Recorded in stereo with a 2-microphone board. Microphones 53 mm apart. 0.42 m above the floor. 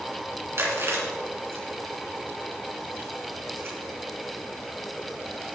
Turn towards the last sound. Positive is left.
turn(degrees=-55)  # may be behind; listen again after turning